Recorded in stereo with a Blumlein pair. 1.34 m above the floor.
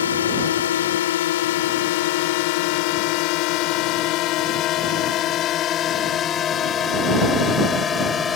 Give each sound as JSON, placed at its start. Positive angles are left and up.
{"t": 0.0, "sound": "a drone", "azimuth_deg": 65}